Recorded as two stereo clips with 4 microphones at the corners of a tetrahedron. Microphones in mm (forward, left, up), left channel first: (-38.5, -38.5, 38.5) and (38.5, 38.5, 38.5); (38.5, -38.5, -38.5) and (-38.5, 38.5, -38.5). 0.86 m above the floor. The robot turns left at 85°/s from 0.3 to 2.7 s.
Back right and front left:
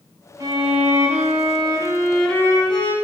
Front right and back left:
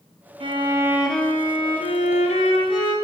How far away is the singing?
I don't hear singing.